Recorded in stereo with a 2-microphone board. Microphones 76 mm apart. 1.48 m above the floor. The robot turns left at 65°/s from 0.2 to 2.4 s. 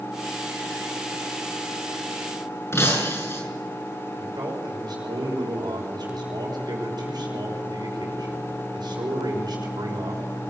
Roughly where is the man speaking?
Right.